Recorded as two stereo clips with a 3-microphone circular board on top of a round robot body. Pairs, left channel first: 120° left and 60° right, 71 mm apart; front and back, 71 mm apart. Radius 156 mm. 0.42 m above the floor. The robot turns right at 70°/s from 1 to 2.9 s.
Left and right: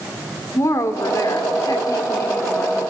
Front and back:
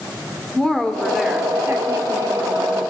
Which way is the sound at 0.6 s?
80° left.